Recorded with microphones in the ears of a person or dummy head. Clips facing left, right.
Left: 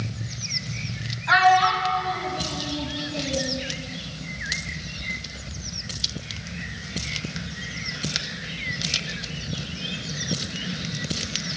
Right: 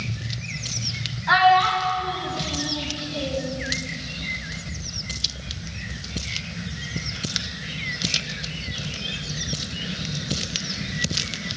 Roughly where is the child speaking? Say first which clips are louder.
Right 1 dB; right.